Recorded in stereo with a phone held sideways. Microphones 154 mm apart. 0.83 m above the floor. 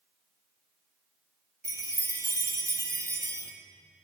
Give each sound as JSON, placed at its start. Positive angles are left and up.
{"t": 1.6, "sound": "a chime", "side_deg": -20, "distance_m": 0.7}